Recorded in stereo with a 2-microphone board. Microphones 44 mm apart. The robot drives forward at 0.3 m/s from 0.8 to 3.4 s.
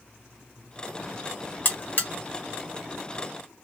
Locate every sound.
1.6 s a buzzer: 45° left (ahead or behind), 0.9 m